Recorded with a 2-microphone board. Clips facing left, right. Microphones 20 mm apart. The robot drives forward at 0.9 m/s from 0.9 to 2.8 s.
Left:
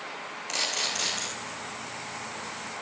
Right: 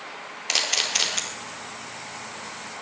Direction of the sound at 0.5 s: 55° right (ahead or behind).